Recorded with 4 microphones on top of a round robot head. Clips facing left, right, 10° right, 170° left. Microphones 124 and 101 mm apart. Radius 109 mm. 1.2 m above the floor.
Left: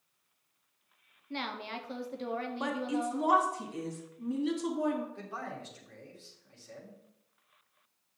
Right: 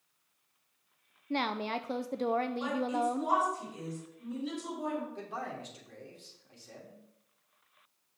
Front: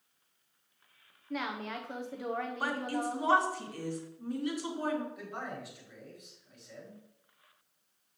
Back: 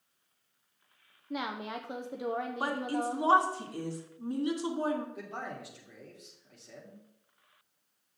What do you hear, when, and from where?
1.3 s a woman speaking: 120° right, 0.6 m
2.6 s a woman speaking: 110° left, 2 m
5.2 s a man speaking: 160° right, 3 m